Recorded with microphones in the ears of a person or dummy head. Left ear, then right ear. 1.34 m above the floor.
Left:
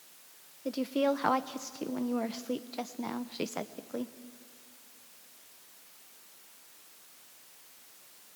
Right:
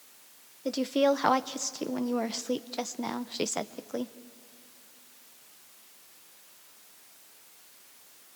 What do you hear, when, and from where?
0.7 s a woman speaking: 10° right (ahead or behind), 0.6 m